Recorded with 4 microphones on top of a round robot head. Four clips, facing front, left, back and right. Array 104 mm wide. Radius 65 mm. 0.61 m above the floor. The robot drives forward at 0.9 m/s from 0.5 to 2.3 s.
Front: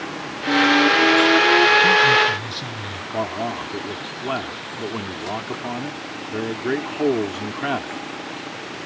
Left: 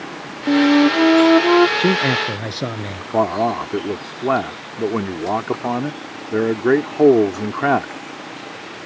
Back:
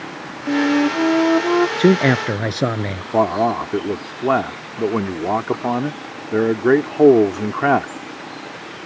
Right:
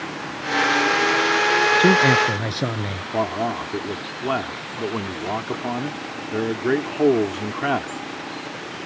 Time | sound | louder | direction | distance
0.5 | a flute | left 7 dB, even | 105° left | ?
1.8 | a man speaking | right 2 dB, back 1 dB | 175° left | ?
3.1 | a man speaking | left 6 dB, back 9 dB | 145° left | ?